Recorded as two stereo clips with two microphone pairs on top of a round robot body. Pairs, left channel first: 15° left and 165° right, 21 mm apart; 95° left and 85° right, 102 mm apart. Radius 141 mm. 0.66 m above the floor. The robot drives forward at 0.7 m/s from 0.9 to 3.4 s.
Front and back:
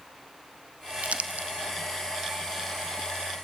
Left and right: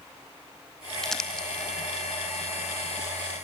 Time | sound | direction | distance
1.0 | crumpling | straight behind | 0.6 m